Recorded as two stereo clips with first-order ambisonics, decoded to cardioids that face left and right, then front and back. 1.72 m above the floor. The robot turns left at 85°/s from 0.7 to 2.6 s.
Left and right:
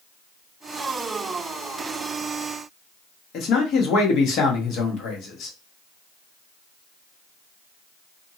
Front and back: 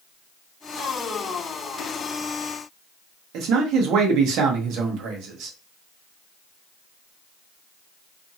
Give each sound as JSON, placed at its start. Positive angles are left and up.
{"t": 3.3, "sound": "a man speaking", "azimuth_deg": 140, "distance_m": 0.9}